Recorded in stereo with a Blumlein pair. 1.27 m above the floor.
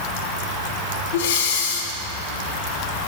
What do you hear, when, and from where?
1.1 s breathing: 55° left, 2 m